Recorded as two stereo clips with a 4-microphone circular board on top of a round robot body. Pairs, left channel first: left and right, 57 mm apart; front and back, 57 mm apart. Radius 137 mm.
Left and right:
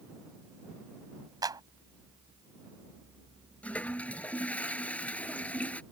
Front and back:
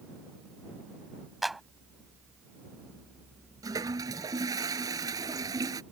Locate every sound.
1.4 s a clap: 90° right
3.6 s a toilet flushing: 160° left